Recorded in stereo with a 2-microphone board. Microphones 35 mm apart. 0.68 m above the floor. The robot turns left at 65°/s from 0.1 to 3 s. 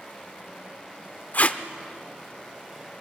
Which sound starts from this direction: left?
Tape being pulled, at 1.3 s.